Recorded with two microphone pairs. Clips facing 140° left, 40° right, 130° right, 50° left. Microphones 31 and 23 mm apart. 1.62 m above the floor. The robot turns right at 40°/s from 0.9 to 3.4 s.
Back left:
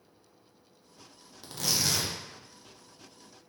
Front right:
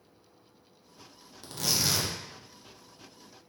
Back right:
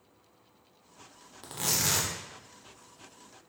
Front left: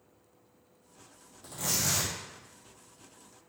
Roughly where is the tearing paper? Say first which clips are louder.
Even, back right 2 dB; behind right.